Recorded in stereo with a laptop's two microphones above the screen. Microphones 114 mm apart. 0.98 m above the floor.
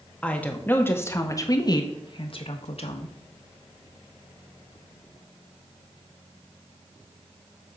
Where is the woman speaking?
10° left (ahead or behind), 1.7 m; by 3.1 s 65° left (ahead or behind), 1.3 m.